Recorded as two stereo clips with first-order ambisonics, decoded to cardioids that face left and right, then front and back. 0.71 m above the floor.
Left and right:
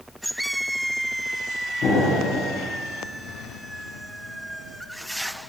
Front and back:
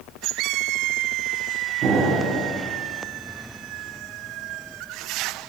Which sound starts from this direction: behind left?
An explosion, at 1.8 s.